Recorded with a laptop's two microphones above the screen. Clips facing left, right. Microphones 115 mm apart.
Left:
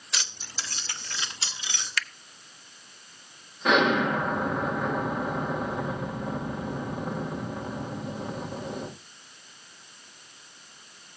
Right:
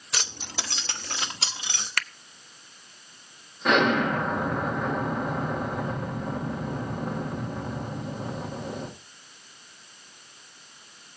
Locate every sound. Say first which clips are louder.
0.1 s keys jangling: right 4 dB; 50° right (ahead or behind), 0.8 m; by 1.9 s 55° right (ahead or behind), 2.0 m
2.0 s a finger snap: even; 50° right (ahead or behind), 0.7 m
3.6 s an explosion: even; centre (ahead or behind), 1.8 m